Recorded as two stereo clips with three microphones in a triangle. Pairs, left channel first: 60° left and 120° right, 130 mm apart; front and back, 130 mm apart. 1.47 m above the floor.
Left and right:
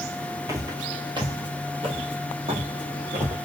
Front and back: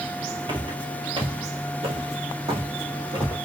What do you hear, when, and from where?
0.5 s footsteps: 170° right, 1.8 m; by 3.4 s 135° right, 3 m